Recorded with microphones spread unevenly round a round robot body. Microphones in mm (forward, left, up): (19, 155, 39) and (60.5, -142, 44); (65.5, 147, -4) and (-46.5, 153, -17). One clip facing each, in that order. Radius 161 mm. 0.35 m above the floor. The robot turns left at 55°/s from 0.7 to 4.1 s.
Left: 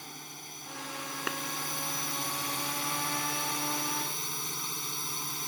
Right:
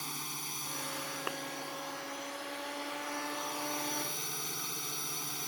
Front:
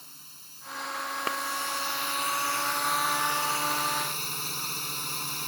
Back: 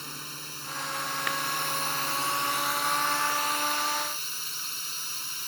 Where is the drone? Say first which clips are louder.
Right 2 dB, back 15 dB; 155° right; by 5.5 s 20° left.